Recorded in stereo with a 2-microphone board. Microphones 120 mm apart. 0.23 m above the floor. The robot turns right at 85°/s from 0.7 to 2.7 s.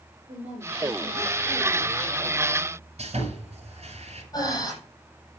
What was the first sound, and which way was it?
A woman speaking, 105° right.